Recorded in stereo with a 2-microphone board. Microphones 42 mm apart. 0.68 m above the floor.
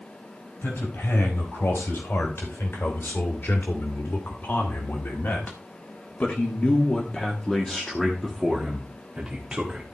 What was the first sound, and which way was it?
A man speaking, 75° left (ahead or behind).